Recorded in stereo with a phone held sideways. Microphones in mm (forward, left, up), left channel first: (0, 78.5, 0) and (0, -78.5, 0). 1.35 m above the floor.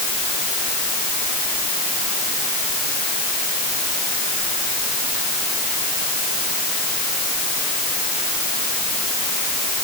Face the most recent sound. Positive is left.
No sound to turn to.